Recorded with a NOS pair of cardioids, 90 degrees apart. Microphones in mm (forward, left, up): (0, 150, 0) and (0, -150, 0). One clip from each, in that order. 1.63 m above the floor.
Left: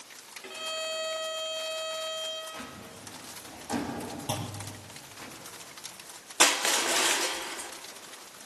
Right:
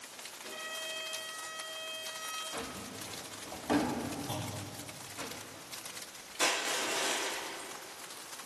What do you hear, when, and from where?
0.4 s a violin: 65° left, 3.5 m
2.5 s a drawer: 60° right, 2.5 m
4.3 s a clunk: 40° left, 0.8 m
6.4 s crushing: 55° left, 0.7 m